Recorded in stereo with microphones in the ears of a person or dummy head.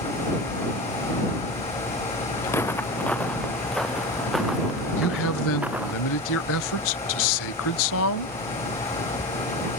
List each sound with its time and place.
2.5 s footsteps: 10° left (ahead or behind); by 6.0 s 10° right (ahead or behind)
5.0 s a man speaking: 75° left (ahead or behind)